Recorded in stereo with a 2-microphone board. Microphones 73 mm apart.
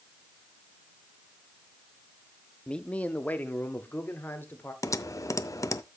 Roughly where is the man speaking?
Centre.